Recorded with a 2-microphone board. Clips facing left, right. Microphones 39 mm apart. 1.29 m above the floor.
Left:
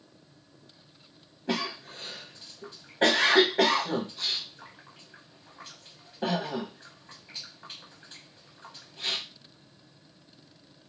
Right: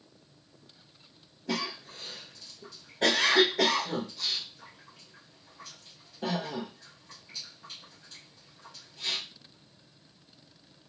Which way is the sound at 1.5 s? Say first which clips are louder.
Left 2 dB; 45° left (ahead or behind).